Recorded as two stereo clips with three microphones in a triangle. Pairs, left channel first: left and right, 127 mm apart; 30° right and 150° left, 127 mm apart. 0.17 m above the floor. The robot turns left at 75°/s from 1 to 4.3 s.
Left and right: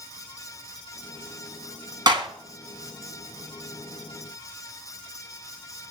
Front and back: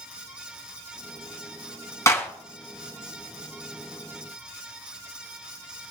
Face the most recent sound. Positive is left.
turn(degrees=115)